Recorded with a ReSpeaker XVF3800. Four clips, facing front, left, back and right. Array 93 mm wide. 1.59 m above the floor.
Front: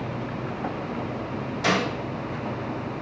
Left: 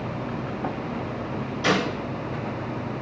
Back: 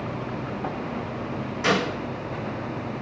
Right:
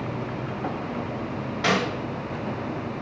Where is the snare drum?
110° right, 1.9 m.